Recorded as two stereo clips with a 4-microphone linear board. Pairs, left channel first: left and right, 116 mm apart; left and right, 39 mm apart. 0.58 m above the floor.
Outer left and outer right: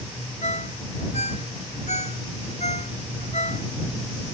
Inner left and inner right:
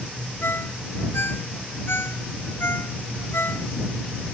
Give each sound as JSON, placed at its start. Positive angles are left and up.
{"t": 0.4, "sound": "a ringtone", "side_deg": 75}